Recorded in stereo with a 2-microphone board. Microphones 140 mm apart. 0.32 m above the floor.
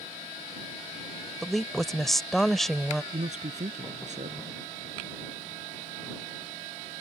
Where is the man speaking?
60° right (ahead or behind).